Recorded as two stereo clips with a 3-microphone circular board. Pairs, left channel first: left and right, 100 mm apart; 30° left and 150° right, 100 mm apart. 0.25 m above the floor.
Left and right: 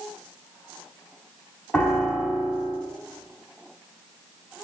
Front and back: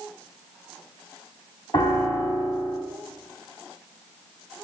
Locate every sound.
1.7 s a piano: 20° left, 1.0 m